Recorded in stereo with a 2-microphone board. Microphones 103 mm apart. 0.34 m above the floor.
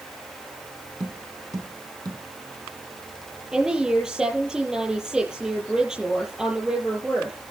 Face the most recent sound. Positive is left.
turn(degrees=-10)  # may be behind; listen again after turning